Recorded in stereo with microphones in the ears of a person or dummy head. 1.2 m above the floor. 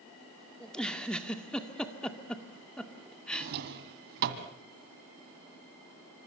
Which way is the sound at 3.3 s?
50° right (ahead or behind).